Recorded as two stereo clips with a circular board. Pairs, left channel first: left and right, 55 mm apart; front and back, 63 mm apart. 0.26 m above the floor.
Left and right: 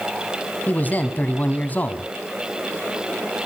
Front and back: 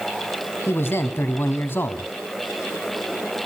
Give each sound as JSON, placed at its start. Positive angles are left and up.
{"t": 0.7, "sound": "a man speaking", "azimuth_deg": 40, "distance_m": 1.8}